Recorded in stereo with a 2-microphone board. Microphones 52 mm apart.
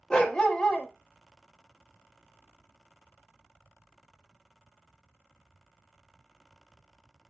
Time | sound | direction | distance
0.1 | a dog barking | 15° left (ahead or behind) | 0.6 m